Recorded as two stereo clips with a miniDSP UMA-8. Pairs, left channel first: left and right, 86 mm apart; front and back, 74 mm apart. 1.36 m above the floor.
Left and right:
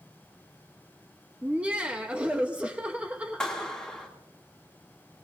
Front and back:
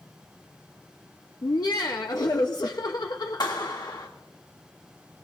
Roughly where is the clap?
Ahead.